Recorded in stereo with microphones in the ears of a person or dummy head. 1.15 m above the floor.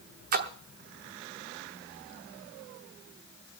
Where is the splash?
40° right (ahead or behind), 0.9 m.